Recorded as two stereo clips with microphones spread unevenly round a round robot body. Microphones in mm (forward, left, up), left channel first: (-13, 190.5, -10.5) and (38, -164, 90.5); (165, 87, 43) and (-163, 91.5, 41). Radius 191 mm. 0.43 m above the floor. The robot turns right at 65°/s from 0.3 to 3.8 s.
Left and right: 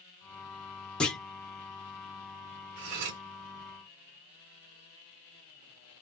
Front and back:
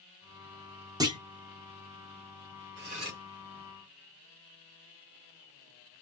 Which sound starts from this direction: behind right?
Cutlery clinking, at 2.8 s.